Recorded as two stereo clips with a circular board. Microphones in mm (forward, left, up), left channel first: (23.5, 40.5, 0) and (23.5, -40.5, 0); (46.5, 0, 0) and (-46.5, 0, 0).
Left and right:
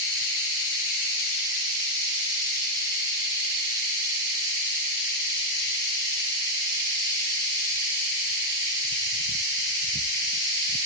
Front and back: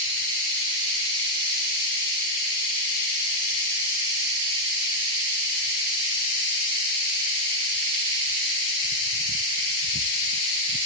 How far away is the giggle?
I don't hear a giggle.